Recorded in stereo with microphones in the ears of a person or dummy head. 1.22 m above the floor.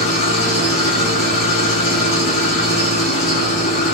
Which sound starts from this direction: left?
An engine running, at 0.0 s.